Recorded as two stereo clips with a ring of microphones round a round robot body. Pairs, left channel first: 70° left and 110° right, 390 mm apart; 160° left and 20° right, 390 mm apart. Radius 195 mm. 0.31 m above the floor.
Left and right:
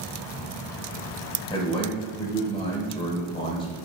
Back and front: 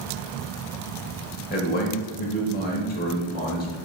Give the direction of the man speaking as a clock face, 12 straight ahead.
8 o'clock.